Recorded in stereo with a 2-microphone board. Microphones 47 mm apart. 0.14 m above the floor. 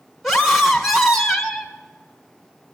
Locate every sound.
0.2 s a scream: 5° right (ahead or behind), 1.1 m